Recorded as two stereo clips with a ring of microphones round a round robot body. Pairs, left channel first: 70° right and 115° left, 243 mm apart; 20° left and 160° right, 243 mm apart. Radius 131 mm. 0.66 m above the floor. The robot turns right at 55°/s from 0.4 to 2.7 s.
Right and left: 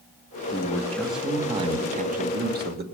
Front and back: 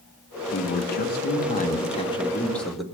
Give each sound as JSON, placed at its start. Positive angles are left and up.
{"t": 0.5, "sound": "a man speaking", "azimuth_deg": -10, "distance_m": 1.4}